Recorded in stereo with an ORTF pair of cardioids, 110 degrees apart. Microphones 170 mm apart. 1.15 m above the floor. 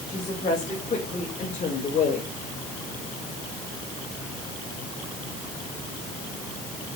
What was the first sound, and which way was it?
A woman speaking, 30° left.